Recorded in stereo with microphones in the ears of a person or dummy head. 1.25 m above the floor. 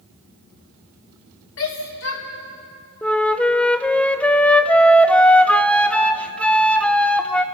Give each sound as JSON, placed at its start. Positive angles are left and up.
{"t": 1.6, "sound": "a shout", "side_deg": 70, "distance_m": 3.5}
{"t": 3.0, "sound": "a flute", "side_deg": 5, "distance_m": 0.7}